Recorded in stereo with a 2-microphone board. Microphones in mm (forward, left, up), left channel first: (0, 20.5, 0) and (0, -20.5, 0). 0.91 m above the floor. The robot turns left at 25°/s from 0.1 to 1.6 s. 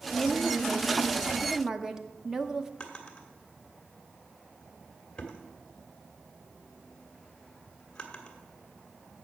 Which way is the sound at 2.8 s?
20° left (ahead or behind).